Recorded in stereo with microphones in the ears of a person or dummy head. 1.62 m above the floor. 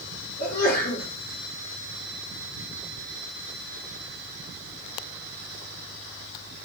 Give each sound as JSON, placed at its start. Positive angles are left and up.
{"t": 0.4, "sound": "a sneeze", "side_deg": 60, "distance_m": 5.0}